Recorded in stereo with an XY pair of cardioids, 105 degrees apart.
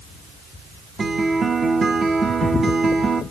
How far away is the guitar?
About 1.4 m.